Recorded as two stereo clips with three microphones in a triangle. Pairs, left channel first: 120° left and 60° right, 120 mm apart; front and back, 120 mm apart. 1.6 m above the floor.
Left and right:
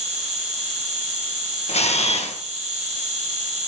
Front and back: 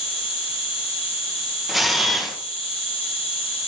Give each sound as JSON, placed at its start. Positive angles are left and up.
{"t": 0.0, "sound": "an insect", "azimuth_deg": -35, "distance_m": 4.0}
{"t": 1.7, "sound": "a camera shutter", "azimuth_deg": 90, "distance_m": 1.8}